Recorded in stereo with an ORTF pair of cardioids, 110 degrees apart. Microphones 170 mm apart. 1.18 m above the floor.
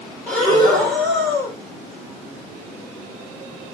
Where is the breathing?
10° left, 2 m.